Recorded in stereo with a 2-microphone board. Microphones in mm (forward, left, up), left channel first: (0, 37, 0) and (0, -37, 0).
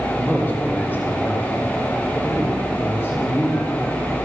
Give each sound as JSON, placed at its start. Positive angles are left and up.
{"t": 0.1, "sound": "a man speaking", "side_deg": 20, "distance_m": 4.5}